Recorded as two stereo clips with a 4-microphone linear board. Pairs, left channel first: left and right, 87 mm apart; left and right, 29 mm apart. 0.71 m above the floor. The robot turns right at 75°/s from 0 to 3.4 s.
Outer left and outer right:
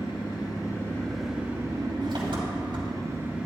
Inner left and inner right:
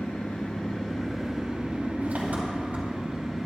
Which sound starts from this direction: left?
An engine running, at 0.0 s.